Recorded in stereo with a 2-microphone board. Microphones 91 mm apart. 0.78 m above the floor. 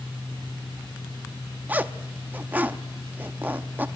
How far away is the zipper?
About 0.7 m.